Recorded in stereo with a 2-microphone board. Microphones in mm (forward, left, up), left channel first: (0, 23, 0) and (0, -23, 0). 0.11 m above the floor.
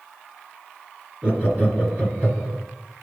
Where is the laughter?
30° right (ahead or behind), 2.0 m.